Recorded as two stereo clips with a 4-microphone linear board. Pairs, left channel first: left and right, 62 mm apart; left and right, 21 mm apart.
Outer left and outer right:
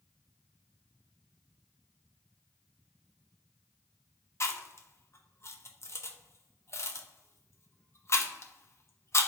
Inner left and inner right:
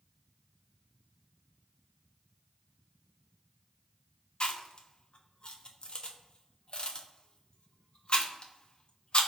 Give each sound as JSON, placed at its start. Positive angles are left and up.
{"t": 4.4, "sound": "chewing", "side_deg": 45, "distance_m": 0.8}